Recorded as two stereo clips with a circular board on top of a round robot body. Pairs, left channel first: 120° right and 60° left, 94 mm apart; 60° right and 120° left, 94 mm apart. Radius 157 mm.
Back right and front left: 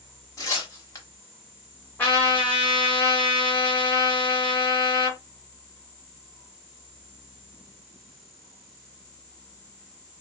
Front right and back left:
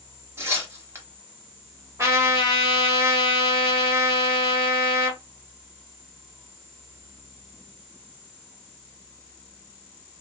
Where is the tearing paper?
175° right, 1.1 m.